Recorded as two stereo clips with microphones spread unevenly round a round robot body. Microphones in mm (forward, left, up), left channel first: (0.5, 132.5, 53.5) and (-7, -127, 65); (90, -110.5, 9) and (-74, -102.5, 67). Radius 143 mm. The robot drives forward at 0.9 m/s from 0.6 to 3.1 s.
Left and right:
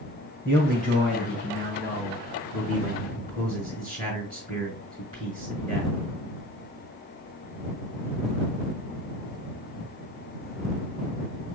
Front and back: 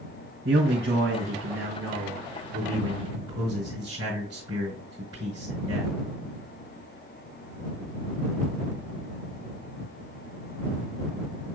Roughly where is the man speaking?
Behind left.